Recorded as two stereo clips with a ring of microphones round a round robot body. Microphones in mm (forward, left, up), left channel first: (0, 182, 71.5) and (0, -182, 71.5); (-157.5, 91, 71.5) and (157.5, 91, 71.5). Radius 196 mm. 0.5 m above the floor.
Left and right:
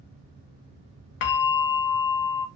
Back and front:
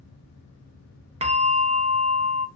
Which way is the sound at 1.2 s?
75° left.